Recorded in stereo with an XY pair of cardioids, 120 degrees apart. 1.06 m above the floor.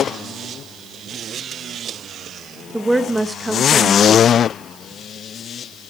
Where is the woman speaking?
10° right, 1.0 m.